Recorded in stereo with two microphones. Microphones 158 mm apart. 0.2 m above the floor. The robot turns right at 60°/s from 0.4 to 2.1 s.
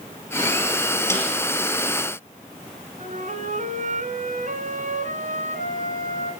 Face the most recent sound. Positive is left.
turn(degrees=-55)  # may be behind; listen again after turning